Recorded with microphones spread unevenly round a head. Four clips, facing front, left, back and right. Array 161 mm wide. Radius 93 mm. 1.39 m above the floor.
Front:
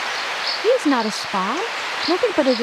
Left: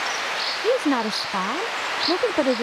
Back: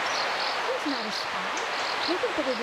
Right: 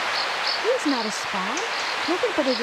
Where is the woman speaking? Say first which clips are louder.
Left 3 dB, front 12 dB; 5° left.